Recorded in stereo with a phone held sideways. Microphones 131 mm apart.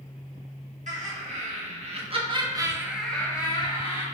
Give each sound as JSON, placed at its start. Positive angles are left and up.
{"t": 0.9, "sound": "laughter", "side_deg": -65, "distance_m": 1.5}